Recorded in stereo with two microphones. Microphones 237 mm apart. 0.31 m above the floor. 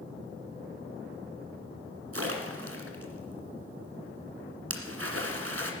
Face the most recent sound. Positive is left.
turn(degrees=-75)  # may be behind; listen again after turning